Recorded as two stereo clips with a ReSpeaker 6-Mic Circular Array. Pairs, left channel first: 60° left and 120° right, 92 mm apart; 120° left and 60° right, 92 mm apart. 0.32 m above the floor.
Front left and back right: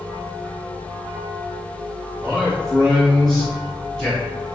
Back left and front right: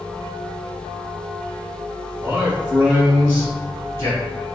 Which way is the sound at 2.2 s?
35° right.